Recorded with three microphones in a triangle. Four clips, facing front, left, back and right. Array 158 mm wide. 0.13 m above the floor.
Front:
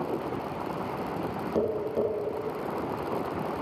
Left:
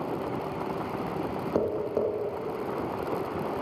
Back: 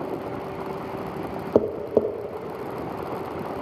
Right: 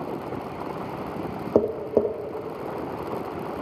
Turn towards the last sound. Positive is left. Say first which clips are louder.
# right 7 dB, back 7 dB
turn(degrees=-140)